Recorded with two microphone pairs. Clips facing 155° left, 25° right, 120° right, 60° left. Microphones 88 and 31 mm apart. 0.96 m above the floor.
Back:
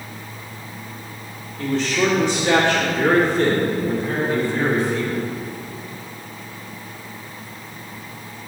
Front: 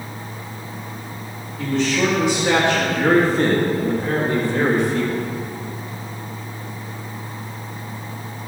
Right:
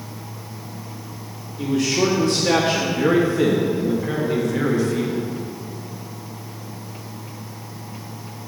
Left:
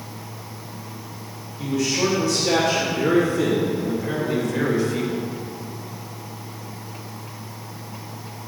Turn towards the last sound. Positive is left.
turn(degrees=-20)